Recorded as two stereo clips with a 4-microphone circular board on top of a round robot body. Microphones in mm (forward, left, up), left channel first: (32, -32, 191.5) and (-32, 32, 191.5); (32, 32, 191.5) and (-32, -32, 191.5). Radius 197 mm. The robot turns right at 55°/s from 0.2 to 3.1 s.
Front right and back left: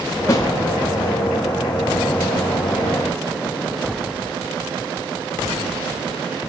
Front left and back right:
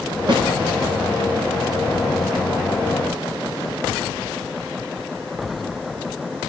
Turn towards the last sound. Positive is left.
turn(degrees=50)